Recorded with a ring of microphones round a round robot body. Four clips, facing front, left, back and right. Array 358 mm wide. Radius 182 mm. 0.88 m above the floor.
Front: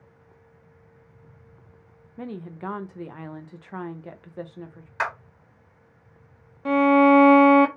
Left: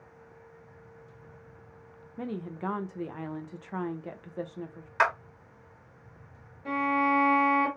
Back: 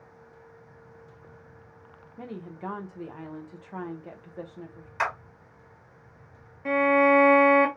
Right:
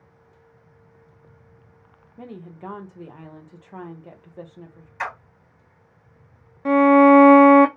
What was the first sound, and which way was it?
A woman speaking, 35° left.